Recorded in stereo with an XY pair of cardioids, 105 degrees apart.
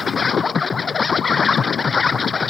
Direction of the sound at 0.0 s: 30° left.